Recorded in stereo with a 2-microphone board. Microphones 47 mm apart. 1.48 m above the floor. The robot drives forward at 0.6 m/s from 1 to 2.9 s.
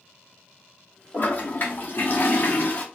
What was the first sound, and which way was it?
A toilet flushing, 35° left (ahead or behind).